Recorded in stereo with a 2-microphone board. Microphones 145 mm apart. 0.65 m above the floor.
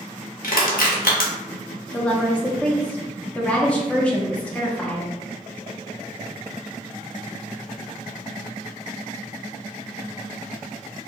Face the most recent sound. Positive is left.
turn(degrees=10)  # may be behind; listen again after turning